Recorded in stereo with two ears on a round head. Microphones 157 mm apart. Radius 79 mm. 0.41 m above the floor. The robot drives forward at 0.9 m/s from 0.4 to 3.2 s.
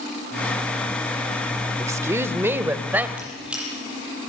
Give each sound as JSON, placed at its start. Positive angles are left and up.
{"t": 1.8, "sound": "a woman speaking", "side_deg": -20, "distance_m": 1.0}
{"t": 3.2, "sound": "a squeak", "side_deg": -5, "distance_m": 8.5}